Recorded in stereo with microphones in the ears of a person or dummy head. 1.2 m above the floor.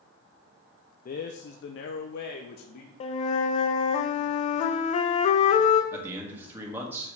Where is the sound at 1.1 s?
40° left (ahead or behind), 0.5 m; by 2.9 s 55° left (ahead or behind), 1.0 m.